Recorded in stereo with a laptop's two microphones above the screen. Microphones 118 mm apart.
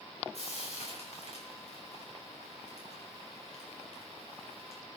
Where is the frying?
60° left (ahead or behind), 4 m.